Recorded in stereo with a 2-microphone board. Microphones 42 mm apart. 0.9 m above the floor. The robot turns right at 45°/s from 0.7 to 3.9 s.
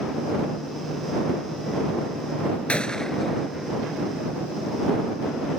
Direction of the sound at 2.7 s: 30° left (ahead or behind).